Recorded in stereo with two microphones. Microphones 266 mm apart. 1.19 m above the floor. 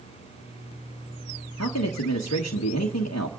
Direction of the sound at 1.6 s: 65° left (ahead or behind).